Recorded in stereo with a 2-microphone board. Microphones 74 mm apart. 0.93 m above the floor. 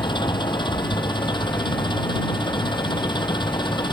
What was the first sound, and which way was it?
An engine running, 80° left.